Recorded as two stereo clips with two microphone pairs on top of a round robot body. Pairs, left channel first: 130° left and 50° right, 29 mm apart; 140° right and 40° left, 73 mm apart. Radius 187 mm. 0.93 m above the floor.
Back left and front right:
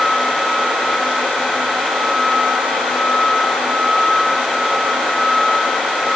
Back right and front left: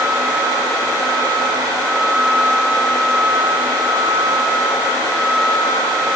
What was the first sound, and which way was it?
Only background noise.